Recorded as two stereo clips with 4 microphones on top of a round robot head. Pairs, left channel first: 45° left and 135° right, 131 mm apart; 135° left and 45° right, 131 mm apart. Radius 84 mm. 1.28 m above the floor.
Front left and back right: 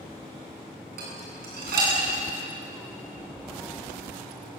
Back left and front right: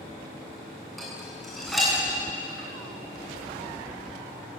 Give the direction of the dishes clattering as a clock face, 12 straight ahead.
5 o'clock.